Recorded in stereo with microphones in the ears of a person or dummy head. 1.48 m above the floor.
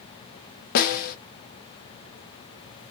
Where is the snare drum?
55° left (ahead or behind), 0.5 m.